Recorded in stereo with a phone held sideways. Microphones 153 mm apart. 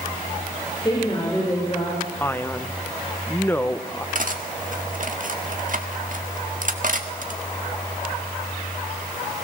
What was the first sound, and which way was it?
A woman speaking, 30° left (ahead or behind).